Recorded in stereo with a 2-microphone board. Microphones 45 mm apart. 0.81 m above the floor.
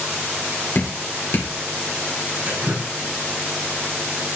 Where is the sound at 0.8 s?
60° left (ahead or behind), 3 m.